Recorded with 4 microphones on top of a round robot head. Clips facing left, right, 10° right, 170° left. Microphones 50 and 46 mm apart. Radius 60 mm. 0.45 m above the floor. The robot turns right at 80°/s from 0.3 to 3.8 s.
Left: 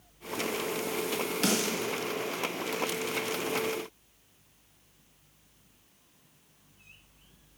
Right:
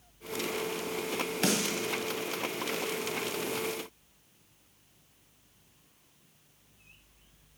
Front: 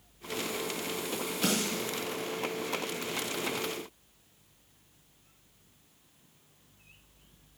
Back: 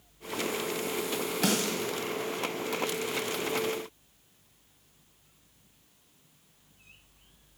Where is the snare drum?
150° right, 1.9 m; by 1.9 s 110° right, 1.9 m.